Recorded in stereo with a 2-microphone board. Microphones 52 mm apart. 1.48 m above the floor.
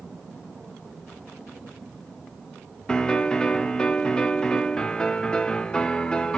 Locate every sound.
2.9 s a piano: 15° left (ahead or behind), 0.7 m